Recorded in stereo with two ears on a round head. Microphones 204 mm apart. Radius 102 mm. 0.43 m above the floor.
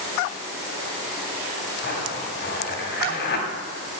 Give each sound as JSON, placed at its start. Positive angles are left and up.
{"t": 1.8, "sound": "a zipper", "side_deg": 45, "distance_m": 3.0}